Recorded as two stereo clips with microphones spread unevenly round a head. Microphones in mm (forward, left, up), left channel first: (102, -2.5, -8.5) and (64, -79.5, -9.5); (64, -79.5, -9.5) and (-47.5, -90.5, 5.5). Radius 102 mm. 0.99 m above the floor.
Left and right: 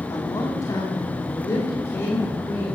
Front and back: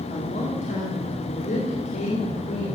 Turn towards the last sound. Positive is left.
turn(degrees=5)